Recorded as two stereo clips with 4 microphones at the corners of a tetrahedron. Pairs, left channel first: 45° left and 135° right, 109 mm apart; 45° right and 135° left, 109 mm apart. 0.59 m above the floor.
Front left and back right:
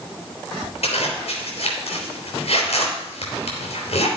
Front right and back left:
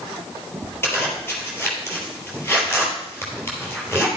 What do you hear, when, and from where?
0.8 s a zipper: 25° left, 3.5 m